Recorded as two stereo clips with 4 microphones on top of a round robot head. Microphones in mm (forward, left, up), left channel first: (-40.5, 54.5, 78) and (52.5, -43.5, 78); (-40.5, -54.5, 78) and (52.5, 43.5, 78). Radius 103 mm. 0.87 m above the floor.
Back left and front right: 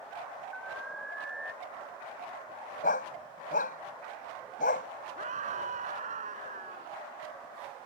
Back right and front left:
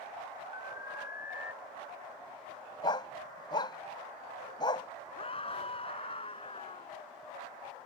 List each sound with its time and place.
0.5 s an alarm: 140° right
2.8 s a dog barking: 165° left
5.2 s a scream: 85° right